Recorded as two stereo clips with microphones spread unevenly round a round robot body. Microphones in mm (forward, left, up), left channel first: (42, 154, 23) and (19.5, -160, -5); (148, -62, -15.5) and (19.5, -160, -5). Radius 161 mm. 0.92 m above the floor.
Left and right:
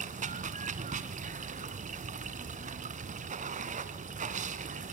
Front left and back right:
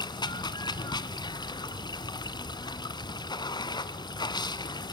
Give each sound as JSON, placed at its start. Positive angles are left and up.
{"t": 0.0, "sound": "running water", "azimuth_deg": -25, "distance_m": 1.4}